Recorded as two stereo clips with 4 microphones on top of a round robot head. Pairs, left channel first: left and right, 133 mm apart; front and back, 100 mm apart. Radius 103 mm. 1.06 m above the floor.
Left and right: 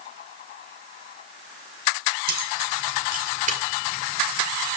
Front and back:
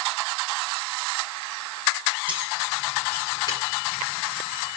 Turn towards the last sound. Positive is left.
turn(degrees=-30)